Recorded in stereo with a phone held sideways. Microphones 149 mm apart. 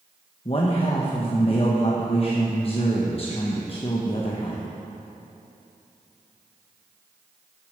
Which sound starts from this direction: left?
A man speaking, at 0.5 s.